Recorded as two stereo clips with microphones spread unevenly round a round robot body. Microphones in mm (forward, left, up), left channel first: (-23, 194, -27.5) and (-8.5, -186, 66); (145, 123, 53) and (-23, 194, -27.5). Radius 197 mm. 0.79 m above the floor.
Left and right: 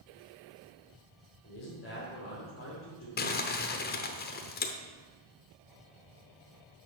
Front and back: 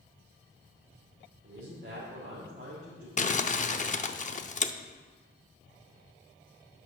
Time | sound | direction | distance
1.4 | a man speaking | 150° left | 2.5 m
3.2 | crumpling | 20° left | 0.7 m